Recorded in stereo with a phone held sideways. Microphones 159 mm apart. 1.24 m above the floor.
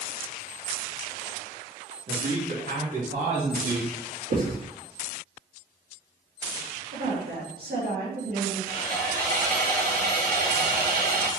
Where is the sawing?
70° right (ahead or behind), 2 m.